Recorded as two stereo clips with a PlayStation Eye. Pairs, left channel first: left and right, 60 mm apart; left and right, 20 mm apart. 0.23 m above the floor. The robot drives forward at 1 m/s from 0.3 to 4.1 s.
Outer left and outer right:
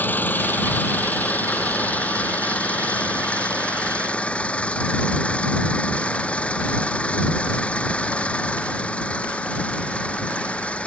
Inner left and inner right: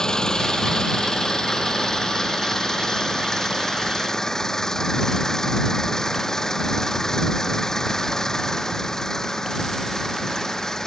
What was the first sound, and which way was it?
An engine running, 30° left (ahead or behind).